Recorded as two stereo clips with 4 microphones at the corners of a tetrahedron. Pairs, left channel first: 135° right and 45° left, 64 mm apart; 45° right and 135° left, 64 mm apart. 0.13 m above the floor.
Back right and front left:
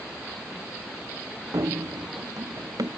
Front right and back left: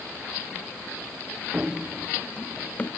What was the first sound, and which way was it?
Running footsteps, 65° left.